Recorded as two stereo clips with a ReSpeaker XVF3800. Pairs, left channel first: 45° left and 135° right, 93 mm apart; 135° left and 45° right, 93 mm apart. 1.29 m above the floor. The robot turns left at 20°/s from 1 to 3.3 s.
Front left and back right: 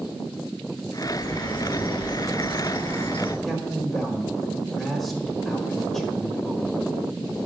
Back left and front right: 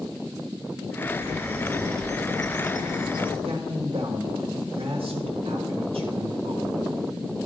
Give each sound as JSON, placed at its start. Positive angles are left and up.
{"t": 1.0, "sound": "a bird", "azimuth_deg": 80, "distance_m": 3.5}
{"t": 3.5, "sound": "a man speaking", "azimuth_deg": -35, "distance_m": 1.4}